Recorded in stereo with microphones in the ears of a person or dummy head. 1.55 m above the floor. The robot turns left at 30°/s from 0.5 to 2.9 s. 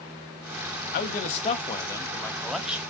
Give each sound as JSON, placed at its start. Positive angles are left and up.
{"t": 0.9, "sound": "a man speaking", "azimuth_deg": 50, "distance_m": 0.6}